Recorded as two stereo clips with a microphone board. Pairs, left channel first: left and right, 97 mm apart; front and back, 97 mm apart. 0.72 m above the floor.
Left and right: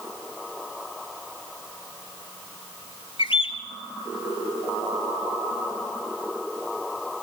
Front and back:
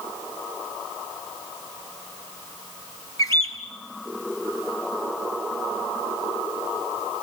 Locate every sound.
3.2 s a bird: 55° left, 4.5 m